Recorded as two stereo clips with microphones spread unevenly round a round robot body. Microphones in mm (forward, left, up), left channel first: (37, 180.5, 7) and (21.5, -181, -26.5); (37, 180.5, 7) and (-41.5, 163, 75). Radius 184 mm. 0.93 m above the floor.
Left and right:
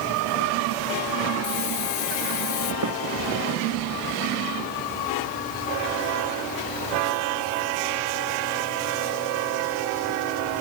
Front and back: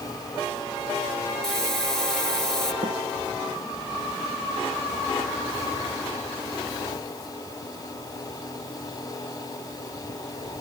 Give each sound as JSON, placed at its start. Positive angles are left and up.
{"t": 1.4, "sound": "a hiss", "azimuth_deg": 100}
{"t": 2.8, "sound": "a snare drum", "azimuth_deg": -135}